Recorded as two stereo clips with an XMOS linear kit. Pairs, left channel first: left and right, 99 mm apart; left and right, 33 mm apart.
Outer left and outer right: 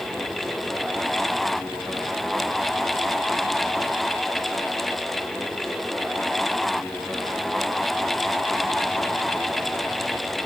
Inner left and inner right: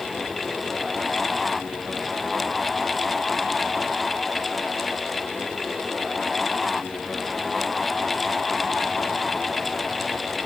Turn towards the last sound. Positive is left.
No sound to turn to.